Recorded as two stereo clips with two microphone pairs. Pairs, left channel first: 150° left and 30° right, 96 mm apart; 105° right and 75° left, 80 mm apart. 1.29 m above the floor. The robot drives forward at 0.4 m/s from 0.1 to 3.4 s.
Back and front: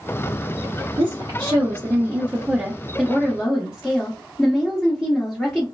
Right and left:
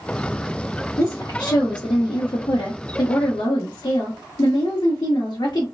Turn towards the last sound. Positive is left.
turn(degrees=-130)